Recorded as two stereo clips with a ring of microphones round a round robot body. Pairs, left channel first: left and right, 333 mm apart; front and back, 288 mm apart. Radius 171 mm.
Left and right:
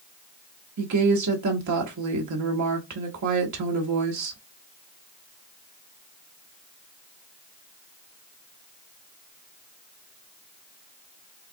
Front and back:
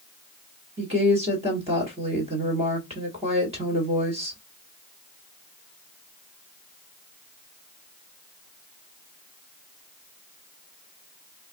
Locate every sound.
0.8 s a woman speaking: 110° right, 1.4 m